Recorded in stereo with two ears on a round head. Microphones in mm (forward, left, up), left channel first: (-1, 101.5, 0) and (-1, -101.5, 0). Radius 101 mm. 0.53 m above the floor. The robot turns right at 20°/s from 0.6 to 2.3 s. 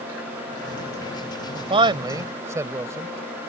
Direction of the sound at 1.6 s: 25° right (ahead or behind).